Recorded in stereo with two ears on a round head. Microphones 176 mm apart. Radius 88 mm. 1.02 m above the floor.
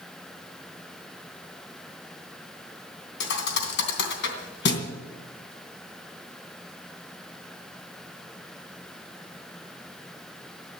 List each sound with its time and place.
3.2 s a thud: 60° left (ahead or behind), 3 m